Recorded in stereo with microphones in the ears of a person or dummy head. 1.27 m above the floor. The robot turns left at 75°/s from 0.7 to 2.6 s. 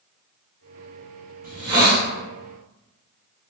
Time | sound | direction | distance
1.4 | a hiss | 130° right | 0.7 m